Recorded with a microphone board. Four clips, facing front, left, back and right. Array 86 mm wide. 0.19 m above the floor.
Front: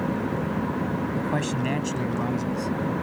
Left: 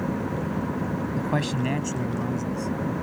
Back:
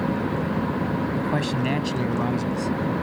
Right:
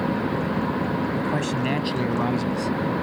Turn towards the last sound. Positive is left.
turn(degrees=-105)